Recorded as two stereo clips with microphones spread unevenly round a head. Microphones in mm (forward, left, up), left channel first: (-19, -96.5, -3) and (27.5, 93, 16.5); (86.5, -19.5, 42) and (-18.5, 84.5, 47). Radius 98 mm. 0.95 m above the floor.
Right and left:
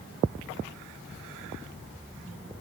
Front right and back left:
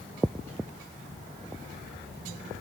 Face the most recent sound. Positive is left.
No sound to turn to.